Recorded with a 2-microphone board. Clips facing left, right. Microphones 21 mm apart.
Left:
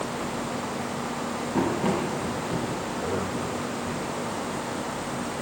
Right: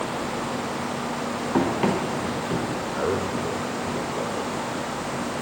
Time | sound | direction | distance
1.5 | running footsteps | 60° right (ahead or behind) | 7 m
2.9 | a man speaking | 75° right (ahead or behind) | 2.5 m